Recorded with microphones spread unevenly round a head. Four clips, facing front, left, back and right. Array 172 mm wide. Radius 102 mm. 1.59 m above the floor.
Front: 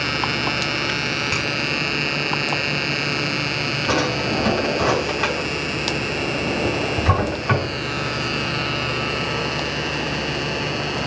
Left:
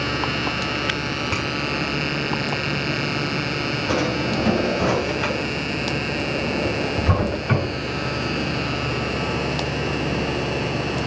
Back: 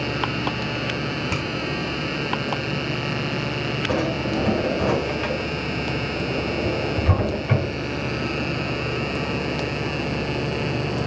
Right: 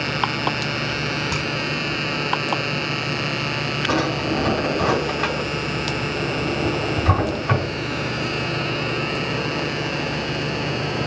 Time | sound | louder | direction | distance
1.3 | a finger snap | even, front 1 dB | 160° right | 2 m
3.9 | a drawer | right 1 dB, front 3 dB | 25° right | 4 m